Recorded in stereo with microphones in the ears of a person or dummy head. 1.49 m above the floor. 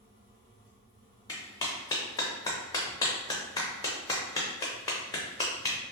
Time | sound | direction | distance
0.0 | a fan | 10° right (ahead or behind) | 1.6 m
1.3 | a clap | 25° left (ahead or behind) | 0.6 m